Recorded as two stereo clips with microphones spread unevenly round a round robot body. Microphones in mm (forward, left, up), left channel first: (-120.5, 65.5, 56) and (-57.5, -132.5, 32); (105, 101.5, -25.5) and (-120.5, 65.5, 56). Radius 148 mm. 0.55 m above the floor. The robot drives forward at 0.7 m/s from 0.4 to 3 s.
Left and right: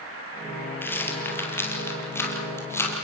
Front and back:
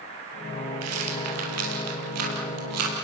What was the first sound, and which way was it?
A rattle, 170° right.